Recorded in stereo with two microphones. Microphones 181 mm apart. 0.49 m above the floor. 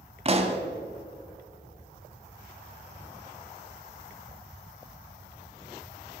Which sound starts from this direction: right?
A pop, at 0.2 s.